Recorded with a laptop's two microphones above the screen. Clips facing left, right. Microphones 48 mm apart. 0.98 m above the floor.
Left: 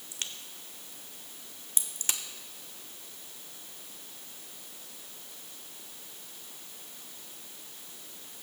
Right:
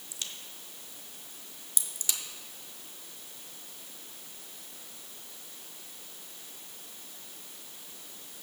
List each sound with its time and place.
0.1 s a crack: 45° left (ahead or behind), 0.9 m